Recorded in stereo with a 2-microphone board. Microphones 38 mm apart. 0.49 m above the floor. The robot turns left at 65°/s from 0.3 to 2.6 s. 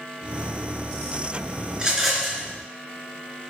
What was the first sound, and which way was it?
A rattle, 155° right.